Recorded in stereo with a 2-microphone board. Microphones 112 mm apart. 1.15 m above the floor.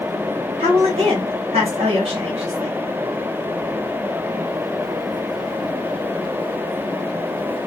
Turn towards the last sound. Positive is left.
turn(degrees=-65)  # may be behind; listen again after turning